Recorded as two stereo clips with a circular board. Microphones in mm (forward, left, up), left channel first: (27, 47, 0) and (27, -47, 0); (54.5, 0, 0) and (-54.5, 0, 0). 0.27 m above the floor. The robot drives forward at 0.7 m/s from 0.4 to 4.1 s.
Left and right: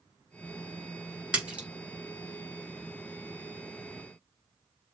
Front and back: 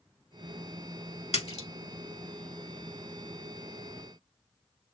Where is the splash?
10° right, 1.4 m; by 1.7 s 15° right, 1.2 m.